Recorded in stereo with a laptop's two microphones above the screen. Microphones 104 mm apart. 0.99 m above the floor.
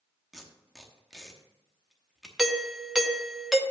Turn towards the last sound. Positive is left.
turn(degrees=-5)  # may be behind; listen again after turning